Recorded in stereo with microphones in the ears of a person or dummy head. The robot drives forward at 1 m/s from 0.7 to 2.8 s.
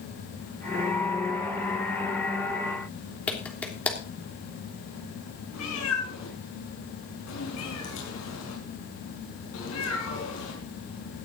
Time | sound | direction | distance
3.3 | a clap | 5° left (ahead or behind) | 3 m
5.5 | a cat meowing | 75° left (ahead or behind) | 5 m